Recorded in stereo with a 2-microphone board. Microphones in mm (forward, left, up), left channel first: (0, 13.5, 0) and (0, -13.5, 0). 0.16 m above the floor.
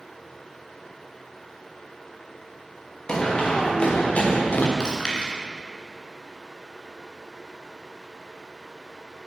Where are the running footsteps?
35° left (ahead or behind), 3.5 m; by 4.7 s 80° left, 1.6 m.